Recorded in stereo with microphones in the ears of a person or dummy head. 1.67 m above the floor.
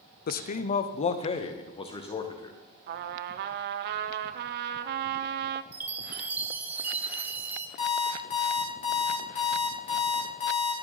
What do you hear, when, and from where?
0.3 s a man speaking: 50° left (ahead or behind), 0.6 m; by 2.6 s 20° left (ahead or behind), 1.7 m
2.9 s a trumpet: 50° right (ahead or behind), 0.5 m
5.7 s a chime: 5° right (ahead or behind), 1.1 m
7.8 s an alarm clock: 40° left (ahead or behind), 2.5 m